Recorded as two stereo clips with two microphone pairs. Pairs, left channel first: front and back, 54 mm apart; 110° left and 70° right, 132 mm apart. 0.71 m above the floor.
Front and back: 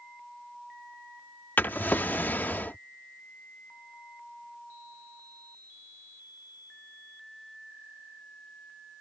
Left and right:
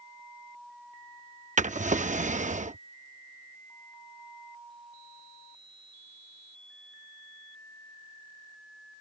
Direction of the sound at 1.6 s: 50° right.